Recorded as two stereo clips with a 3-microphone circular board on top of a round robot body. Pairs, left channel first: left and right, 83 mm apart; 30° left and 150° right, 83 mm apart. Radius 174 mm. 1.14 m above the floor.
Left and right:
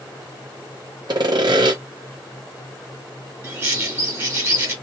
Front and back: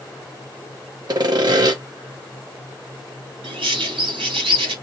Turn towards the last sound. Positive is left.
turn(degrees=-150)